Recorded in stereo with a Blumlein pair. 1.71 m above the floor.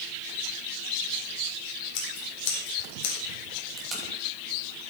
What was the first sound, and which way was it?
Scissors, 45° left.